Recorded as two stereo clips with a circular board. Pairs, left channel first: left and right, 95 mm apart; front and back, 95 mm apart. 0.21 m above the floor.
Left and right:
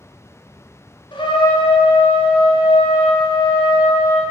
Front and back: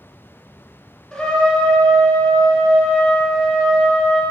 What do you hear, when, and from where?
1.1 s a trumpet: 85° left, 1.2 m